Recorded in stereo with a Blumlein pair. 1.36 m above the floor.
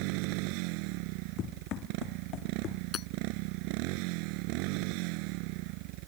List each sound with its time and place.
0.0 s a motorcycle: 45° right
1.4 s running footsteps: 35° left
2.9 s hammering: 25° left